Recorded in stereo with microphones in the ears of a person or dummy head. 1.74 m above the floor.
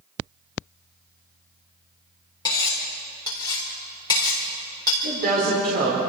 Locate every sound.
2.5 s cutlery clinking: 25° left (ahead or behind), 4 m
5.0 s a woman speaking: 50° right (ahead or behind), 4.5 m